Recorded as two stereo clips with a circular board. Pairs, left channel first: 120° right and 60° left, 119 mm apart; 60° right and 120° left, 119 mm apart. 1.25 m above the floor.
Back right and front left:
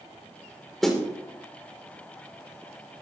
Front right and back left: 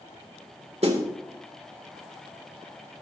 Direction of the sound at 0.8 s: 150° left.